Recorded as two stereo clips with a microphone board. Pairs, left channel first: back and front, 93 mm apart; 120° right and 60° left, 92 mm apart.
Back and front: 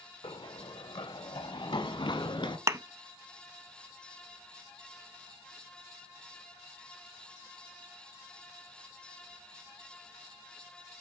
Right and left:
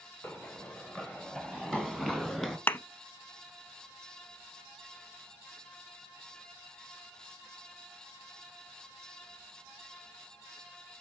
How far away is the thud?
About 0.5 m.